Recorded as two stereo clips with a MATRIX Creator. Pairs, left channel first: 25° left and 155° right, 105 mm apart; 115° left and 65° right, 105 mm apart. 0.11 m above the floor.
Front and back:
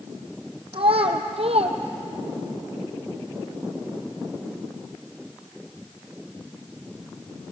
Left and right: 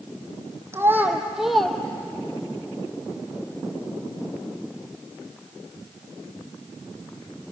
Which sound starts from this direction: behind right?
A child speaking, at 0.7 s.